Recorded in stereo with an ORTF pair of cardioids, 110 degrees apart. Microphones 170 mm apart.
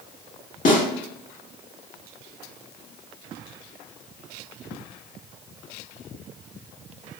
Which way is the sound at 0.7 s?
50° left.